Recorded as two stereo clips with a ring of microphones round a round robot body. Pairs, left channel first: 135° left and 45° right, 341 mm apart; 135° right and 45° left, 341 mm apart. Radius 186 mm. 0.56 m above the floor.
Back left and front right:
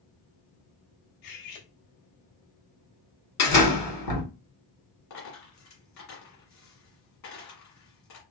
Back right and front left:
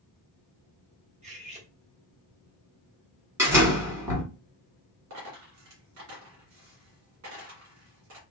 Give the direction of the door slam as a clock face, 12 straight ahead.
8 o'clock.